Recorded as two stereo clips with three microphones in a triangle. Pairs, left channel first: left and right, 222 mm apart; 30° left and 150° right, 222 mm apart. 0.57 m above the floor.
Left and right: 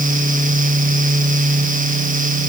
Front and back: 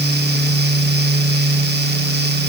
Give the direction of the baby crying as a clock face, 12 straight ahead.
No baby crying in this recording.